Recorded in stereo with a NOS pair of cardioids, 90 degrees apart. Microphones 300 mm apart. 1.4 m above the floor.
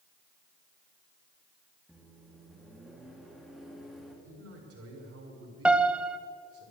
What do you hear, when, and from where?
1.9 s a microwave: straight ahead, 2.5 m
4.2 s a man speaking: 50° right, 4.5 m
5.7 s a piano: 5° right, 0.8 m